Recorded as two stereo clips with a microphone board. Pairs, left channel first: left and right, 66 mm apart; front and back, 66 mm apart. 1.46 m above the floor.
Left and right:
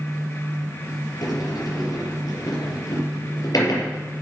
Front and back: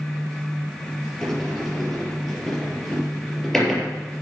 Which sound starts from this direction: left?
A sliding door, at 1.2 s.